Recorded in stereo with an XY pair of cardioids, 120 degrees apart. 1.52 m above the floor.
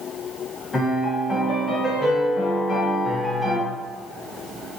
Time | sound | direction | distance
0.7 | a piano | 25° left | 1.3 m